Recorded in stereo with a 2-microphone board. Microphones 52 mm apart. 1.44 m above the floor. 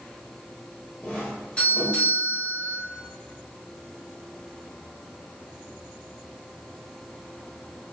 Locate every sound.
1.0 s a doorbell: 25° left (ahead or behind), 1.6 m